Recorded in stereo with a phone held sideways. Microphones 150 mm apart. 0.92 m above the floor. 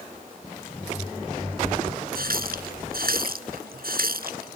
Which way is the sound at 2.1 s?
80° right.